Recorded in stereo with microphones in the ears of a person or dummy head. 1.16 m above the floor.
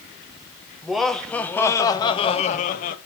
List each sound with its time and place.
0.8 s laughter: centre (ahead or behind), 1.2 m; by 3.0 s 35° left (ahead or behind), 0.8 m